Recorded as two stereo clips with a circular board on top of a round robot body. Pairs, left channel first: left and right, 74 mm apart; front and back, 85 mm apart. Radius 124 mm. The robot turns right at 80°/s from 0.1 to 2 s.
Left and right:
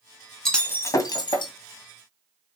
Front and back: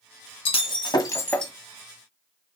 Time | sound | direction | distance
0.5 | breaking glass | 5° left | 1.9 m